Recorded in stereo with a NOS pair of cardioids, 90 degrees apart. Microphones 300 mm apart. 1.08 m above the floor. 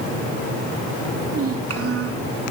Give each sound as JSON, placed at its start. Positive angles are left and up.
{"t": 1.2, "sound": "a child speaking", "azimuth_deg": -50, "distance_m": 7.5}